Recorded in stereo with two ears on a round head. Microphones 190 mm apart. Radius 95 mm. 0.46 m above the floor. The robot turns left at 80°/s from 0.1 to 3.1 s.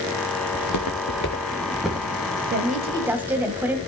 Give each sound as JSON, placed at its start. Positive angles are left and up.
{"t": 0.5, "sound": "footsteps", "side_deg": 65, "distance_m": 2.5}
{"t": 2.5, "sound": "a woman speaking", "azimuth_deg": -125, "distance_m": 2.0}